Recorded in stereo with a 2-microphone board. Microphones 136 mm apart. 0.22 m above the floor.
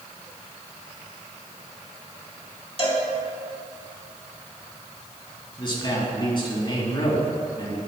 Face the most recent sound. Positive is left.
turn(degrees=35)  # may be behind; listen again after turning